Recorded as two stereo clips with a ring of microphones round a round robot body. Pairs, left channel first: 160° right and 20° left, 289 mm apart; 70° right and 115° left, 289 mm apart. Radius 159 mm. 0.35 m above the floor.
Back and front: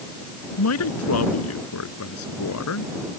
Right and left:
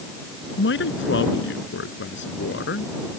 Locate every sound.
0.6 s a man speaking: 120° right